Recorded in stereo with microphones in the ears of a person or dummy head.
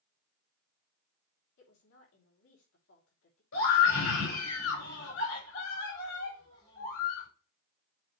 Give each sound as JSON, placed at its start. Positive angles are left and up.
{"t": 1.6, "sound": "a woman speaking", "side_deg": 70, "distance_m": 3.5}
{"t": 3.5, "sound": "a scream", "side_deg": 85, "distance_m": 5.0}